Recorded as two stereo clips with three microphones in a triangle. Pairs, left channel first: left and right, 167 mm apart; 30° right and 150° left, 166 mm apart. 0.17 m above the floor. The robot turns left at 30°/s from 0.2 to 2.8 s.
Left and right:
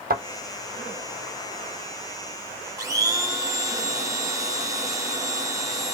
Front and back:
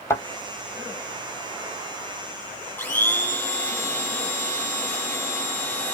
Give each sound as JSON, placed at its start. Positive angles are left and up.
{"t": 0.1, "sound": "a thud", "azimuth_deg": -100, "distance_m": 1.1}
{"t": 2.8, "sound": "a blender", "azimuth_deg": -85, "distance_m": 1.0}